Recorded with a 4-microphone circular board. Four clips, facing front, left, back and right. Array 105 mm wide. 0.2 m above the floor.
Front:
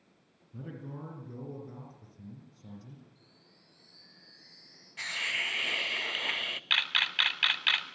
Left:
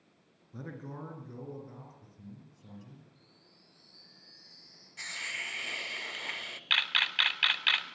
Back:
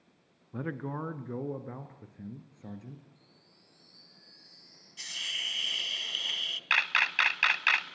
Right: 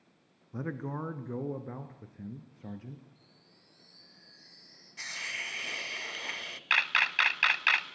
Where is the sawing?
I don't hear sawing.